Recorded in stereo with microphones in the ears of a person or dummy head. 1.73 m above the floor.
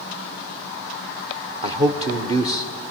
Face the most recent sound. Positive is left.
turn(degrees=-30)  # may be behind; listen again after turning